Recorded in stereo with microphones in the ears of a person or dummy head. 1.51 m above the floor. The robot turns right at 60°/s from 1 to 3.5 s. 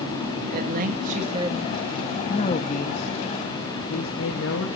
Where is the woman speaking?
45° right, 2 m; by 4.7 s 105° left, 2 m.